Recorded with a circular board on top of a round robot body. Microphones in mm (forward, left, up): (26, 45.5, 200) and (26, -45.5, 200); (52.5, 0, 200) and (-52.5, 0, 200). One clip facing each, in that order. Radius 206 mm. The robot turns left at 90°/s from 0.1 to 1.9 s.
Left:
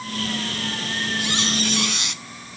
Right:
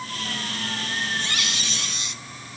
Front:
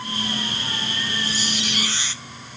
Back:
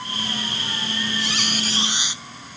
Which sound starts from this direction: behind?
A squeak, at 1.2 s.